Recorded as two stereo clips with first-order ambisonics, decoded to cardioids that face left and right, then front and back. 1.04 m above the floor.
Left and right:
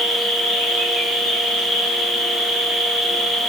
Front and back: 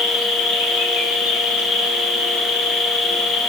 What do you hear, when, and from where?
0.0 s an insect: 20° right, 3.5 m